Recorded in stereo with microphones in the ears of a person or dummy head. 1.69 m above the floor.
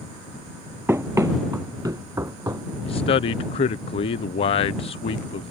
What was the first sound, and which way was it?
Running footsteps, 15° right (ahead or behind).